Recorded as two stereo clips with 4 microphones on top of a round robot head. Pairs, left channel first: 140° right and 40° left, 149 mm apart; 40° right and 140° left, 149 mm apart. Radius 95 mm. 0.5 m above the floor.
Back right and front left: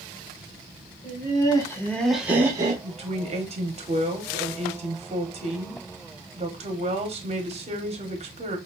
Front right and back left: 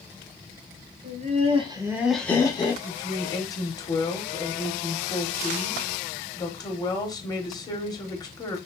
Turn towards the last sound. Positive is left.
turn(degrees=20)